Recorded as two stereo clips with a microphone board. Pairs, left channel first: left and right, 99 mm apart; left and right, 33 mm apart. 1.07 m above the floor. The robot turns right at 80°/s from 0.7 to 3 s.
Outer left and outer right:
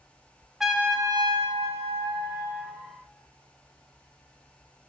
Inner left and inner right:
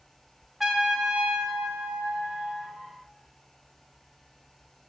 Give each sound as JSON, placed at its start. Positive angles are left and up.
{"t": 0.6, "sound": "a trumpet", "azimuth_deg": -175, "distance_m": 1.1}